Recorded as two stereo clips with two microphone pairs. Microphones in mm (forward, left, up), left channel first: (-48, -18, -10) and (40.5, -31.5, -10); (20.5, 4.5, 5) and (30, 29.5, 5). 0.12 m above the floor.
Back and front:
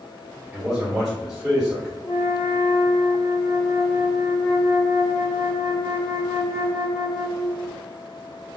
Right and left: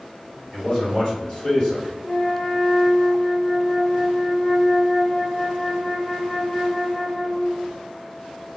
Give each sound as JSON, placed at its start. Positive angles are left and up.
{"t": 0.5, "sound": "a man speaking", "azimuth_deg": -90, "distance_m": 1.9}
{"t": 2.0, "sound": "a flute", "azimuth_deg": -155, "distance_m": 1.5}